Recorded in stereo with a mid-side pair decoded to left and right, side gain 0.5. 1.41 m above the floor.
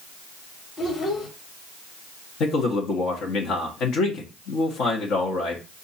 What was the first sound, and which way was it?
A child speaking, 45° left.